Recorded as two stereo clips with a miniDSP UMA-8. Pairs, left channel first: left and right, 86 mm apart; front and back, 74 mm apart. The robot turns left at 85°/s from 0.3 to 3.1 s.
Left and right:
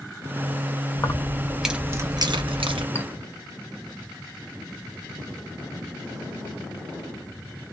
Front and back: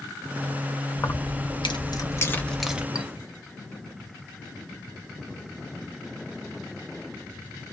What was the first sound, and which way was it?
Keys jangling, 55° left.